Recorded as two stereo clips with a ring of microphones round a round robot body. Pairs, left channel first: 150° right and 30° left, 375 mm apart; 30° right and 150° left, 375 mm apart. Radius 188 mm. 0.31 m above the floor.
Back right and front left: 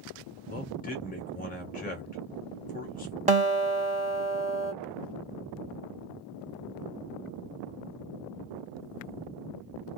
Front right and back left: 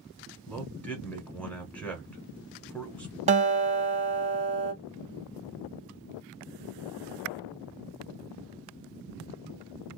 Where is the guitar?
90° left, 0.9 m.